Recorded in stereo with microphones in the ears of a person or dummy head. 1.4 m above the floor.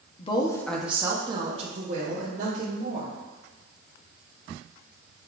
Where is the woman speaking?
35° left (ahead or behind), 0.6 m; by 3.1 s 60° right (ahead or behind), 1.5 m.